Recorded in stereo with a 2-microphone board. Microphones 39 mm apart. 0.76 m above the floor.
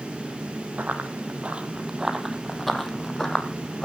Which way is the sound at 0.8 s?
55° right (ahead or behind).